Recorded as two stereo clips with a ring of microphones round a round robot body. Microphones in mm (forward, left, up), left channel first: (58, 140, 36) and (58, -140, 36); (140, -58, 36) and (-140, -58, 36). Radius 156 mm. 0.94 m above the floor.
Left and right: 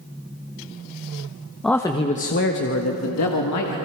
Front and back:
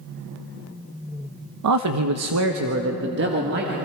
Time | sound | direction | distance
1.6 | a man speaking | straight behind | 0.8 m